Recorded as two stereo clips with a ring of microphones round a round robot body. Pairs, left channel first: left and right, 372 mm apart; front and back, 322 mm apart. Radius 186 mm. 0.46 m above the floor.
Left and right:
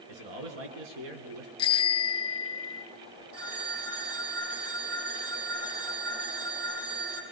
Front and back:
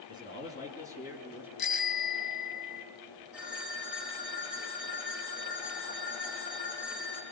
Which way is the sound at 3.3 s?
65° right.